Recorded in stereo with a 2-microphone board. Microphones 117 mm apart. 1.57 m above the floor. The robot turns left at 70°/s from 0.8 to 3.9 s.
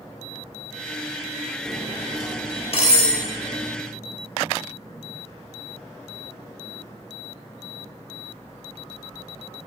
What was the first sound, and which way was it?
Cutlery clinking, 5° right (ahead or behind).